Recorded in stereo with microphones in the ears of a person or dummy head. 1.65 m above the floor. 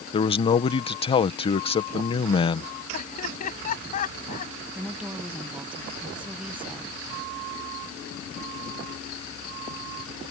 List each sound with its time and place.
0.1 s a man speaking: 25° left (ahead or behind)
2.9 s laughter: 40° left (ahead or behind)
4.8 s a woman speaking: 5° right (ahead or behind)